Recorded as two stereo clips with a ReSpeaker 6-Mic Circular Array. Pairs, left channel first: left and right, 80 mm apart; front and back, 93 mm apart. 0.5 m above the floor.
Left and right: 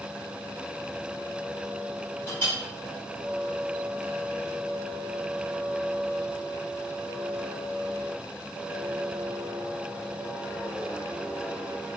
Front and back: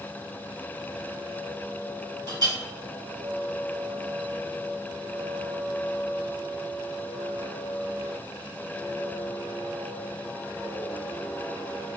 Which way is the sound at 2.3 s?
140° left.